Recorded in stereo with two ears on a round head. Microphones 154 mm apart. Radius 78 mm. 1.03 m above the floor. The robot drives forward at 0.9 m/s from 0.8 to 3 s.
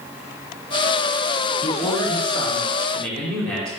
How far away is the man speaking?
About 1.0 m.